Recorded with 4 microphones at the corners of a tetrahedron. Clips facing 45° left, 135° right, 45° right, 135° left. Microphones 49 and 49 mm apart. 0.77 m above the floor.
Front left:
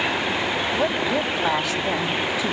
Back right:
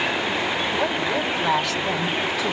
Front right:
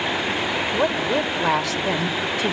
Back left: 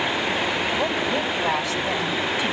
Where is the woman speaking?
35° right, 2.5 m.